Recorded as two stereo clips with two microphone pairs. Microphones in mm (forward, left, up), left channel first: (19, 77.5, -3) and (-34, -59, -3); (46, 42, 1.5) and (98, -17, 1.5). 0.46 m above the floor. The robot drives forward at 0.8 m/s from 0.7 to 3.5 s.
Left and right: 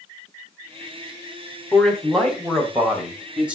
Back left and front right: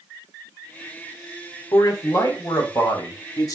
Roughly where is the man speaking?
Behind left.